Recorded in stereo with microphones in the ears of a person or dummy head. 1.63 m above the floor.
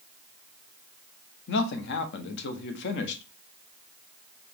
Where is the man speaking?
60° left (ahead or behind), 0.9 m.